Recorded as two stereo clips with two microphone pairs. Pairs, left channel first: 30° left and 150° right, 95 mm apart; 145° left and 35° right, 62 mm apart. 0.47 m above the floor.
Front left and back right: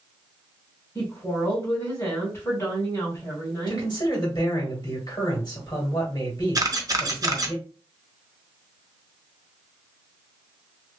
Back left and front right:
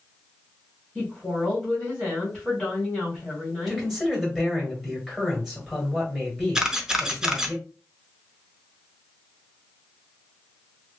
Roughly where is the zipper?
No zipper in this recording.